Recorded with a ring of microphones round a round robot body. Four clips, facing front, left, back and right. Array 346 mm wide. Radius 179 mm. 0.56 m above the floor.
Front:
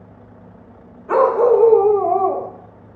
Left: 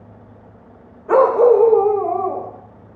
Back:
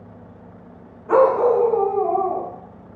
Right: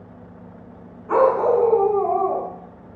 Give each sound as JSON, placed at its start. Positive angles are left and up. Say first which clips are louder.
{"t": 1.1, "sound": "a dog barking", "louder": "left 5 dB, front 2 dB", "azimuth_deg": 80, "distance_m": 1.0}